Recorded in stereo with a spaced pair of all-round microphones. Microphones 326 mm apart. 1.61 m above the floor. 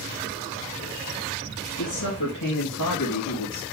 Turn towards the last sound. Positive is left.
turn(degrees=80)